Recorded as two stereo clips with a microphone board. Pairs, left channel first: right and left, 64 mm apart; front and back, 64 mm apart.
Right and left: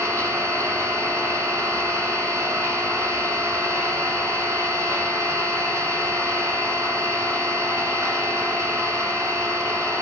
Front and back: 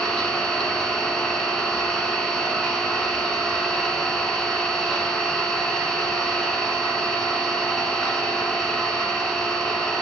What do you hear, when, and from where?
0.0 s an engine running: 80° left, 1.0 m